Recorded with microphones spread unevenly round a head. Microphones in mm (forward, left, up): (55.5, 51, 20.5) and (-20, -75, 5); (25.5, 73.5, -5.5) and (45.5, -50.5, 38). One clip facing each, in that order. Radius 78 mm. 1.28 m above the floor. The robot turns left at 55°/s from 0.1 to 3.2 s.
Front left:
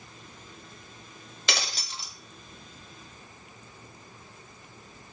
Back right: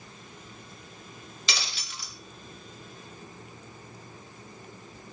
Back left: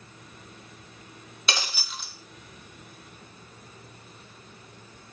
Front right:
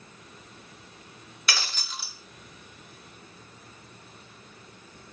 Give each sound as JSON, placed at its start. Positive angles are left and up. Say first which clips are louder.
{"t": 1.5, "sound": "breaking glass", "louder": "front left 4 dB, back left 2 dB", "azimuth_deg": 25, "distance_m": 1.3}